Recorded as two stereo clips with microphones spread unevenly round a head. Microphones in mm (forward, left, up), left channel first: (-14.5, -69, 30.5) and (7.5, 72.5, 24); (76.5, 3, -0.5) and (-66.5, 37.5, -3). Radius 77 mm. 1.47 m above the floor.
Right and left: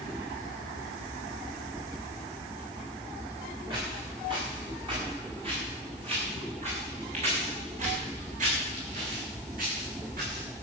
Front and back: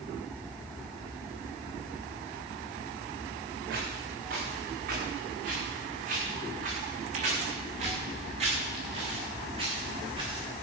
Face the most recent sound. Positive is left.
turn(degrees=110)